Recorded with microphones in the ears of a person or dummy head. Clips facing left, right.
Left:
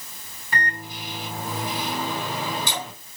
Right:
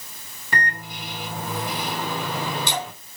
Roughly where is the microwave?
Right.